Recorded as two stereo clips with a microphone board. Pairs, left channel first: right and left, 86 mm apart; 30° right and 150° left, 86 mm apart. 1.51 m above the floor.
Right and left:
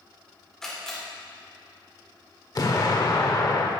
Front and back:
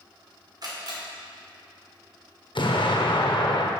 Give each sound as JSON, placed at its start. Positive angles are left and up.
{"t": 0.6, "sound": "a camera shutter", "azimuth_deg": -175, "distance_m": 3.0}
{"t": 2.5, "sound": "an explosion", "azimuth_deg": -50, "distance_m": 0.9}